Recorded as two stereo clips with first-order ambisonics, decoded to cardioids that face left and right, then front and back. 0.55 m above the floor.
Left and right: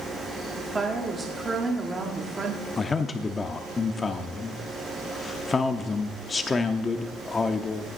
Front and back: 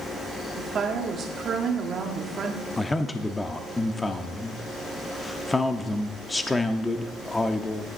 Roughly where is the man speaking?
Ahead left.